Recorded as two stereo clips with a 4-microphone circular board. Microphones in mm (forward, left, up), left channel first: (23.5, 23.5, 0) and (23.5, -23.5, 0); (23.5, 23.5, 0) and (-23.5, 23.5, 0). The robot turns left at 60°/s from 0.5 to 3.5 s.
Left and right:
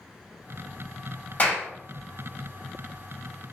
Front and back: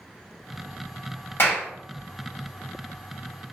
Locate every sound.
1.4 s a clap: 35° left, 1.8 m; by 1.7 s 20° left, 1.8 m